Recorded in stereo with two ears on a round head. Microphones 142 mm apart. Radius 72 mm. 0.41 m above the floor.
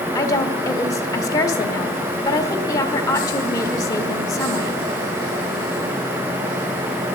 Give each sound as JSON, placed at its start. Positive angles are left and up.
{"t": 0.1, "sound": "a woman speaking", "side_deg": 20, "distance_m": 1.2}